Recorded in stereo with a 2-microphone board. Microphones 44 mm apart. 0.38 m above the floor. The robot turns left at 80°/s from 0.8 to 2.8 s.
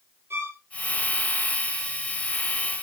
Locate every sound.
0.3 s a violin: 65° right (ahead or behind), 1.4 m